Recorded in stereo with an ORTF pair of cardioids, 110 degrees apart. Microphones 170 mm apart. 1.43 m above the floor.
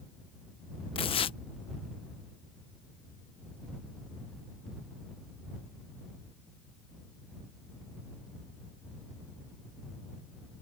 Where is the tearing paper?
35° left.